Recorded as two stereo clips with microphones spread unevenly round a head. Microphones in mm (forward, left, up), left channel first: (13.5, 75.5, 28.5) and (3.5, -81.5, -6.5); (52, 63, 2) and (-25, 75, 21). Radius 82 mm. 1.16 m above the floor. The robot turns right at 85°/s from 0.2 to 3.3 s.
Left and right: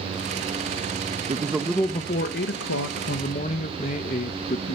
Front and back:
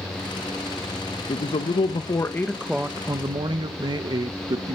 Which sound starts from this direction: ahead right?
A man speaking, at 1.3 s.